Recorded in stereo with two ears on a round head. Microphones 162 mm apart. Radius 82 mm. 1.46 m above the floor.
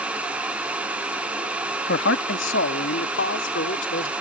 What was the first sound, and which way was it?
A man speaking, 75° left (ahead or behind).